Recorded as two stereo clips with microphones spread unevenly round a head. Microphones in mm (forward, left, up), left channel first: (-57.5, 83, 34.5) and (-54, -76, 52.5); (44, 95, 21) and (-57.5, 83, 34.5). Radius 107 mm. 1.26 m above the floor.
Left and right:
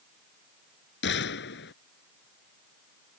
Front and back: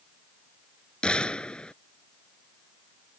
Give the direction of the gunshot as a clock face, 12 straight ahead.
9 o'clock.